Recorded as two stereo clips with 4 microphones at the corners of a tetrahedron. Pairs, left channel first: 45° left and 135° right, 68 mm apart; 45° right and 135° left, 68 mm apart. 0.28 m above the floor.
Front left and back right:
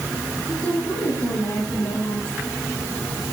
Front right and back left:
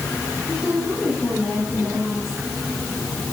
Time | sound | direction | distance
0.5 | a woman speaking | 60° left | 7.5 m